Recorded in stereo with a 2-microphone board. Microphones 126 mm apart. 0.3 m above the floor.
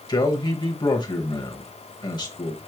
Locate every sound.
0.1 s a man speaking: 35° left (ahead or behind), 1.2 m